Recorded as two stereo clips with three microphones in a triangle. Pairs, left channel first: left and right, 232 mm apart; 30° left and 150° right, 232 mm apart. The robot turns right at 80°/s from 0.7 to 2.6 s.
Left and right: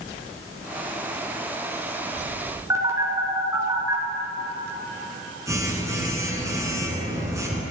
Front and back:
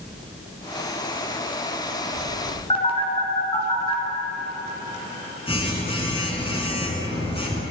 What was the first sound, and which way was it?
A phone buzzing, 20° right.